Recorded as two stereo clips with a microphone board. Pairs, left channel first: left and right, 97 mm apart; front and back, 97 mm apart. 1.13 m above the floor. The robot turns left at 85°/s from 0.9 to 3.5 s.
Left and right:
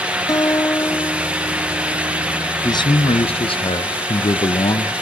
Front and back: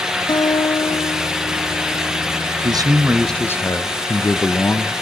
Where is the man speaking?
140° left, 0.6 m; by 4.9 s 65° left, 0.6 m.